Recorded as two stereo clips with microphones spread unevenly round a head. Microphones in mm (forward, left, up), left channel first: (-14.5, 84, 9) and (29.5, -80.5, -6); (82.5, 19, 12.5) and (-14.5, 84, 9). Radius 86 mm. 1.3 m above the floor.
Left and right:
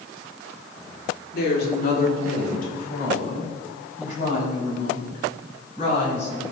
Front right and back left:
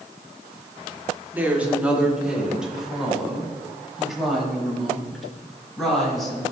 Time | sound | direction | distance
1.3 | a woman speaking | 70° left | 3 m